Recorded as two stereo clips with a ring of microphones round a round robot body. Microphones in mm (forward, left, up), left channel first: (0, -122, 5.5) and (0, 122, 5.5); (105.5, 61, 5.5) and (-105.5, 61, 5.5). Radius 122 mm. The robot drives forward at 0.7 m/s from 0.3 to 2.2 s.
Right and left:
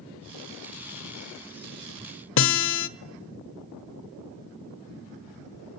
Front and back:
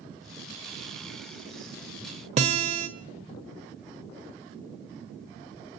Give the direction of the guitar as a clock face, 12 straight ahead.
4 o'clock.